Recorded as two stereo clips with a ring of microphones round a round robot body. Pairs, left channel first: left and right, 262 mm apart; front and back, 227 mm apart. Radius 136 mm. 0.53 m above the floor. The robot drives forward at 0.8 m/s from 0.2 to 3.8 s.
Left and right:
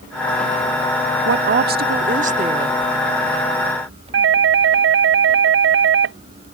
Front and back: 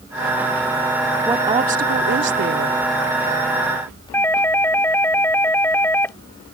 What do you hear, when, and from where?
1.2 s a woman speaking: 105° right; by 2.8 s 155° right
4.1 s a doorbell: 80° right